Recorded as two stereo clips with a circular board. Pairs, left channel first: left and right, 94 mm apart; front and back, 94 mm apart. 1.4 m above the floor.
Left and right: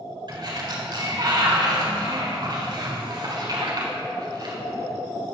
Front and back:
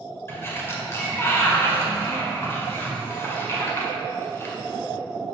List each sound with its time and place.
0.3 s a sliding door: 60° right, 1.9 m